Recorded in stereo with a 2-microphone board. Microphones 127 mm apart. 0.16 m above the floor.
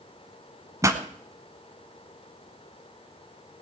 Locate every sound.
0.8 s a pop: 25° right (ahead or behind), 1.1 m